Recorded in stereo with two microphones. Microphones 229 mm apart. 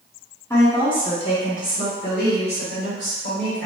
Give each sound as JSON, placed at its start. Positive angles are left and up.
{"t": 0.5, "sound": "a woman speaking", "side_deg": 10, "distance_m": 1.2}